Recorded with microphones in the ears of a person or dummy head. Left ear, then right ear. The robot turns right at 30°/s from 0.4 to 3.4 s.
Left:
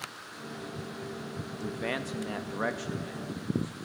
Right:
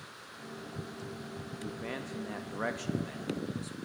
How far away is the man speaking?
About 0.6 m.